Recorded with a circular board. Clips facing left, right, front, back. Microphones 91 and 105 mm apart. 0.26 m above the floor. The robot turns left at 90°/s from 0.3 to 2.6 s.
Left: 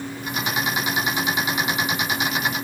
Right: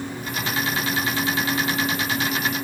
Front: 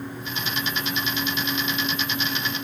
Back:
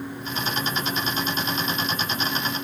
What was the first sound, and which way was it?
Only background noise.